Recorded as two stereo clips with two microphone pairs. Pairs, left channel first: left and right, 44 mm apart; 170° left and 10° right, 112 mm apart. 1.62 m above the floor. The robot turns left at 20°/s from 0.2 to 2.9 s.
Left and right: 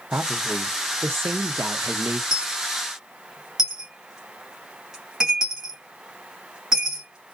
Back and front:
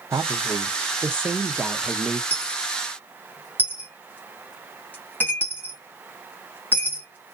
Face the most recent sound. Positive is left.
turn(degrees=-150)